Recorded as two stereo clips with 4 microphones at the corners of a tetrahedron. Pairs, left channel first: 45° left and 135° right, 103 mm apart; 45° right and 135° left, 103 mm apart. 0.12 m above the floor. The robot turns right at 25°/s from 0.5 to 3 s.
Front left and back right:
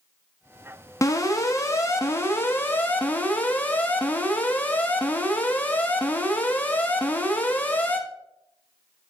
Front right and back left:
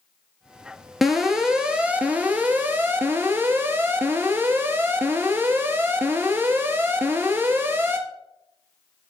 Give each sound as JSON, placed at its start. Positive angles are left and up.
{"t": 1.0, "sound": "an alarm", "azimuth_deg": 45, "distance_m": 1.0}